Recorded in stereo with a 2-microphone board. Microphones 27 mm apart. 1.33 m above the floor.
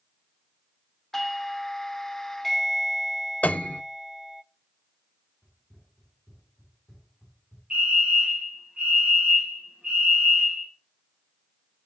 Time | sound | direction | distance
1.1 | a doorbell | 10° left (ahead or behind) | 0.7 m
3.4 | a piano | 70° left (ahead or behind) | 0.6 m
5.4 | running footsteps | 10° right (ahead or behind) | 7.5 m
7.7 | a fire alarm | 45° right (ahead or behind) | 3 m